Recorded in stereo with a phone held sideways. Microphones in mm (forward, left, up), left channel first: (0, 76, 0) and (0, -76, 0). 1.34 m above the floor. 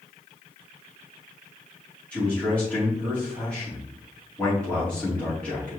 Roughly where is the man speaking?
Centre.